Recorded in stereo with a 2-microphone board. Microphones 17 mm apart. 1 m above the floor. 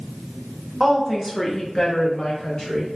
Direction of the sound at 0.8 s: 15° right (ahead or behind).